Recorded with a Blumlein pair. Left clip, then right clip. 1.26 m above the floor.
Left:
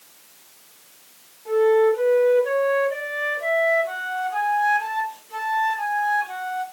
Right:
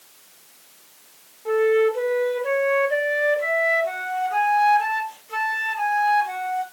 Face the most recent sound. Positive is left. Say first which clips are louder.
# left 1 dB
turn(degrees=-35)